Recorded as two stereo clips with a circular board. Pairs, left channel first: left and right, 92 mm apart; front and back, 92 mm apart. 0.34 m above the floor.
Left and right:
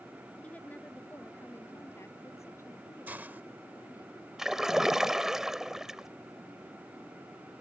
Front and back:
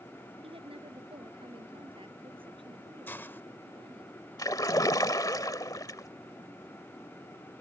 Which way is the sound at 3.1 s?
40° right.